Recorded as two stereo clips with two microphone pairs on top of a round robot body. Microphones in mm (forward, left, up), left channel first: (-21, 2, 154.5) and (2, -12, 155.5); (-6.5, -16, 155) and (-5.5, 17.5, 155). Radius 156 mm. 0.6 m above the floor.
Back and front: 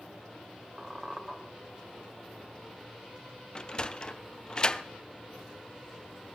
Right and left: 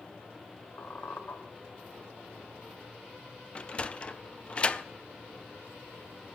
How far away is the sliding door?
About 0.6 m.